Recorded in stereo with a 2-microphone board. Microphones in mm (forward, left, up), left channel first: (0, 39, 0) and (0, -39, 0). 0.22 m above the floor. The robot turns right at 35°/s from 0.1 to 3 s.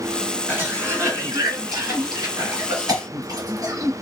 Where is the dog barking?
I don't hear a dog barking.